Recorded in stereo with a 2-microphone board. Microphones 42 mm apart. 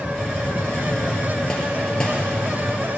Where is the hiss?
20° left (ahead or behind), 3 m.